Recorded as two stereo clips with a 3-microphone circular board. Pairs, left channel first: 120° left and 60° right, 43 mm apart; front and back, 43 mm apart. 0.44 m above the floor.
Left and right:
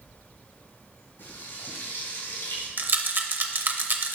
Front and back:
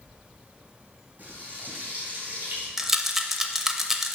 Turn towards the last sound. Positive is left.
turn(degrees=-100)